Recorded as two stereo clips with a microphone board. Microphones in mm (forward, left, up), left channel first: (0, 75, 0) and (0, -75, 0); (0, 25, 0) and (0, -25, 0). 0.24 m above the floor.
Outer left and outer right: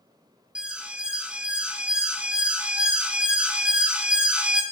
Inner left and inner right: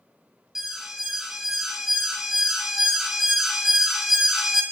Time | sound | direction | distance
0.6 | an alarm | 5° right (ahead or behind) | 1.3 m